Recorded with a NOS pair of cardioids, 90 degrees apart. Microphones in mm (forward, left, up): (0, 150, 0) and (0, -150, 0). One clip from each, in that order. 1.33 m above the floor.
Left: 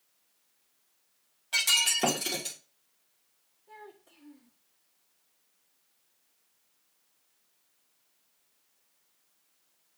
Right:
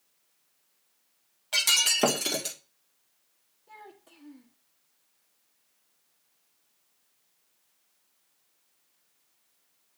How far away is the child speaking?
About 1.6 m.